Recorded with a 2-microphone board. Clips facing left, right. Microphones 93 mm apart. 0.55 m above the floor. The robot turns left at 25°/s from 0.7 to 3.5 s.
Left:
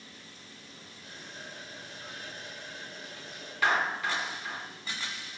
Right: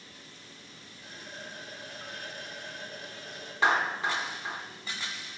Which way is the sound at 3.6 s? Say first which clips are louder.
Right 1 dB; 25° right (ahead or behind).